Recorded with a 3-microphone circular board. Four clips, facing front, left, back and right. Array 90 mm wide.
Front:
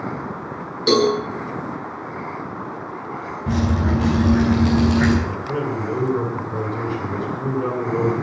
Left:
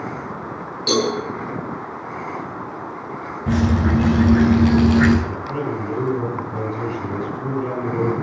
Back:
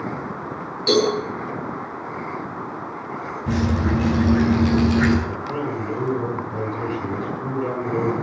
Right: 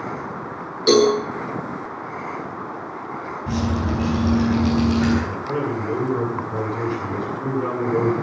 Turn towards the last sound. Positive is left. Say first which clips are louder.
# right 1 dB, front 2 dB
turn(degrees=-35)